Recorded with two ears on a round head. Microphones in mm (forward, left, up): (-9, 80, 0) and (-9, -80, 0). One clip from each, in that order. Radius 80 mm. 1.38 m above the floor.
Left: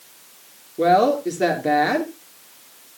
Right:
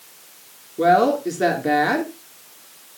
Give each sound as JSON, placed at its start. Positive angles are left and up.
{"t": 0.8, "sound": "a woman speaking", "side_deg": 5, "distance_m": 3.0}